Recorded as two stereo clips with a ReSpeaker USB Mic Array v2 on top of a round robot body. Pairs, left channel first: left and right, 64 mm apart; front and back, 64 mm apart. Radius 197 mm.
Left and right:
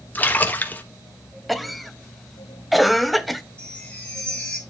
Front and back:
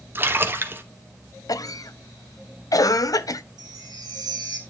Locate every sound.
0.1 s a splash: 140° left, 1.4 m
1.5 s a cough: straight ahead, 0.8 m
3.6 s a chime: 165° left, 1.3 m